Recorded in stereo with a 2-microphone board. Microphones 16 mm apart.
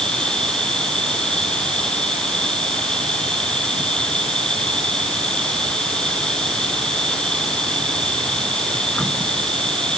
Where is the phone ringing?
No phone ringing in this recording.